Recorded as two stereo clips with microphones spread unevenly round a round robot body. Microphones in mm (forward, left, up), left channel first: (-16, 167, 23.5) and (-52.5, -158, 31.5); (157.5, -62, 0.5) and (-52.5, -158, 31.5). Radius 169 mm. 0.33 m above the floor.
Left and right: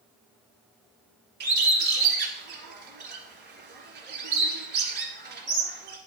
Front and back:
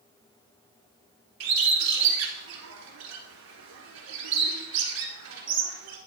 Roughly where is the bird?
Behind right.